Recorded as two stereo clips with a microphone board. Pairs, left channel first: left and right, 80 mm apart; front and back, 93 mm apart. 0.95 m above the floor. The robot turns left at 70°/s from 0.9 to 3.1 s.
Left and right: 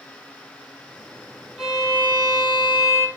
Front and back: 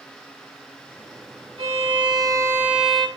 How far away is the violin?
About 5 m.